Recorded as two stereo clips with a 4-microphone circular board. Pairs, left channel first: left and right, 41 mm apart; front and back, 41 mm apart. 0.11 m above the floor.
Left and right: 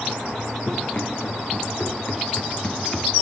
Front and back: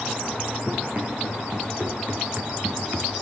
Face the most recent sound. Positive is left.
turn(degrees=170)